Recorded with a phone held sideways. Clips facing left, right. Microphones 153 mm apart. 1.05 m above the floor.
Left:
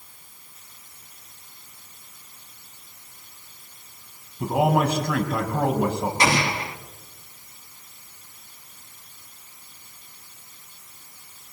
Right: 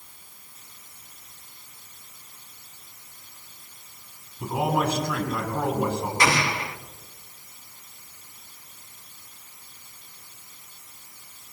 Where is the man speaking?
55° left (ahead or behind), 7 m.